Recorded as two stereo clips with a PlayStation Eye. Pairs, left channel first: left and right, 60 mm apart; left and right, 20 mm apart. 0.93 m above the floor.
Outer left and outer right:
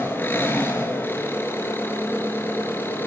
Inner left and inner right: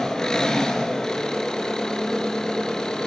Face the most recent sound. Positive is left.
turn(degrees=30)  # may be behind; listen again after turning